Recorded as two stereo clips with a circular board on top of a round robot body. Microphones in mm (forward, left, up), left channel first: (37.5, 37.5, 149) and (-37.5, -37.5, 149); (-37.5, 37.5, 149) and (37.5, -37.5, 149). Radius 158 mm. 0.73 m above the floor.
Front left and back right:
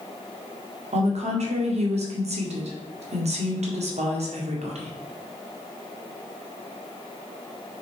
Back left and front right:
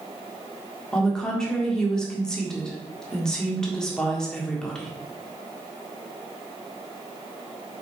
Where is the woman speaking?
140° right, 1.9 m.